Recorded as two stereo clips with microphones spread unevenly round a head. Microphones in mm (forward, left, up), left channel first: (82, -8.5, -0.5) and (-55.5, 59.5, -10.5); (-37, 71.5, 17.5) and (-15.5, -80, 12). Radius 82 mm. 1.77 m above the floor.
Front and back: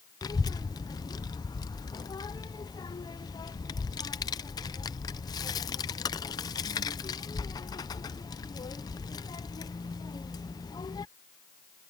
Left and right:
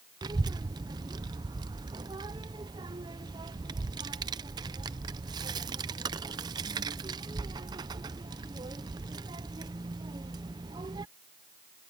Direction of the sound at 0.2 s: 40° right.